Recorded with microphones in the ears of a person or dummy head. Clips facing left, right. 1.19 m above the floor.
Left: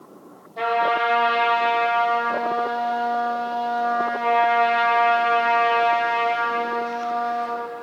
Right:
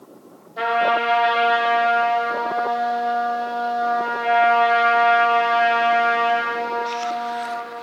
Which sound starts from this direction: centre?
A trumpet, at 0.6 s.